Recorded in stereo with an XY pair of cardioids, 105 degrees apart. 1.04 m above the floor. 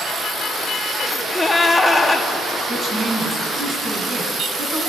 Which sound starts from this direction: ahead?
A gasp, at 1.0 s.